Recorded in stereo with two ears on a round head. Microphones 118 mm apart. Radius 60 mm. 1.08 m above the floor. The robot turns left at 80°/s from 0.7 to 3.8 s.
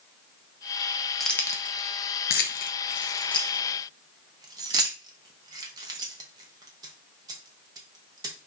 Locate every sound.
1.2 s keys jangling: centre (ahead or behind), 0.6 m; by 8.5 s 25° right (ahead or behind), 0.6 m